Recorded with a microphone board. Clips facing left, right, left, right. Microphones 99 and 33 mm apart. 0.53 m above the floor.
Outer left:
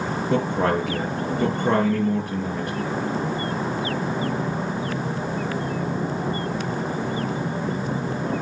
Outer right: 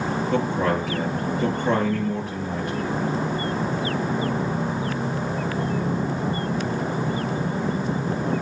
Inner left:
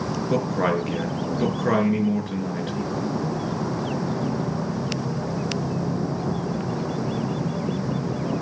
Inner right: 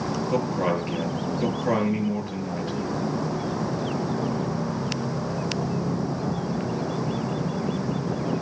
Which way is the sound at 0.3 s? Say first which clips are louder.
Outer left 2 dB, inner left 3 dB; 70° left (ahead or behind).